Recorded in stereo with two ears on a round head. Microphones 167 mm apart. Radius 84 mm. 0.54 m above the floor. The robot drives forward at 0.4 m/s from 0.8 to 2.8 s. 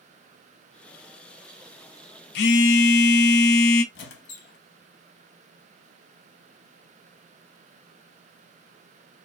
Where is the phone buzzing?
60° left (ahead or behind), 0.5 m.